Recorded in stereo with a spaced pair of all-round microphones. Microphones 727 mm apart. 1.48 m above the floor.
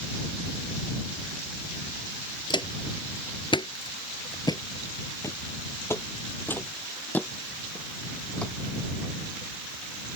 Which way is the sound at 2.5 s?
5° left (ahead or behind).